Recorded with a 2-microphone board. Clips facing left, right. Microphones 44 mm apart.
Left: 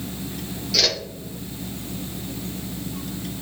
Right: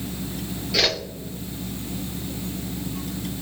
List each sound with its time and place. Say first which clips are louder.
0.7 s a whoosh: right 1 dB; 20° right (ahead or behind), 0.9 m